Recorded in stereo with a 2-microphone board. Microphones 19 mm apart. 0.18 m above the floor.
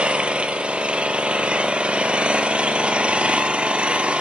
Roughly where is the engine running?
Right.